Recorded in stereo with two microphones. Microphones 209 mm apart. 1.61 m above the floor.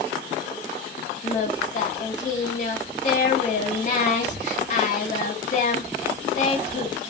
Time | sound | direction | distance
1.2 | singing | 35° left (ahead or behind) | 1.2 m